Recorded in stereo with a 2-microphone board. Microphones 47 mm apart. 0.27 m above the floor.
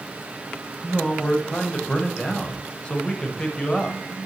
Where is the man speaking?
20° left (ahead or behind), 1.0 m.